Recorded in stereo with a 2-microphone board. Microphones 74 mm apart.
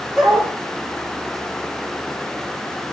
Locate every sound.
0.2 s a dog barking: 5° right (ahead or behind), 5.5 m